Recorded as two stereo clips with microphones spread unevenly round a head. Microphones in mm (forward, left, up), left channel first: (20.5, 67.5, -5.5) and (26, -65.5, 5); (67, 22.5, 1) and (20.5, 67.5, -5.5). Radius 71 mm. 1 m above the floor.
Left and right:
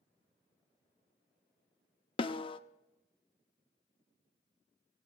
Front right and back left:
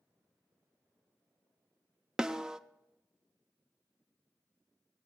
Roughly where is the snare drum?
Ahead left.